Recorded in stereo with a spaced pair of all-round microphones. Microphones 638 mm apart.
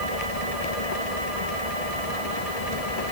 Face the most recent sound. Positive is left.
turn(degrees=70)  # may be behind; listen again after turning